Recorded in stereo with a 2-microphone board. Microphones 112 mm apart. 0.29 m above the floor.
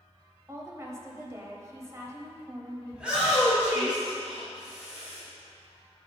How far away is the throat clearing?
No throat clearing in this recording.